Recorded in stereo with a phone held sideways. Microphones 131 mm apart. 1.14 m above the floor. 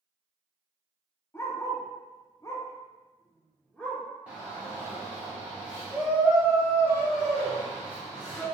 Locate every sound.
1.3 s a dog barking: 20° left (ahead or behind), 0.8 m; by 4.0 s 10° left (ahead or behind), 1.3 m
4.3 s a shout: 10° right (ahead or behind), 0.8 m